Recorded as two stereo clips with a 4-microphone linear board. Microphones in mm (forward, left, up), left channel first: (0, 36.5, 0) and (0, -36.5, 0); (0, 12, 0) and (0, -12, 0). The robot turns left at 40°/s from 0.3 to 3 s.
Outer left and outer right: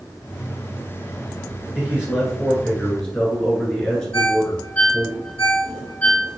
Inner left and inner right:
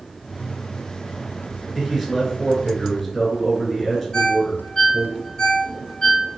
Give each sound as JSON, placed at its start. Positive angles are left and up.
{"t": 1.8, "sound": "a man speaking", "azimuth_deg": -150, "distance_m": 1.4}
{"t": 4.1, "sound": "a ringtone", "side_deg": 25, "distance_m": 0.9}